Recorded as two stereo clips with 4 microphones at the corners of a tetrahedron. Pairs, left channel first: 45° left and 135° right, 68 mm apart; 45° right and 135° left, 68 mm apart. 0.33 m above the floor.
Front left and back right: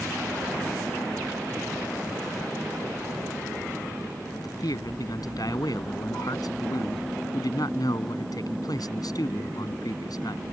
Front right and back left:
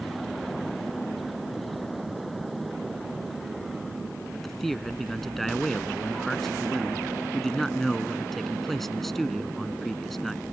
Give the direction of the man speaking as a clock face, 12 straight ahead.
11 o'clock.